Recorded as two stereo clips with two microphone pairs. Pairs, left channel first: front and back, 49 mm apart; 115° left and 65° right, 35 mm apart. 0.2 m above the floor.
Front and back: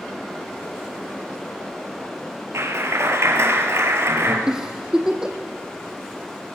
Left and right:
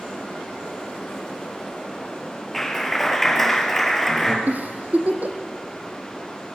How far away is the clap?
About 4 m.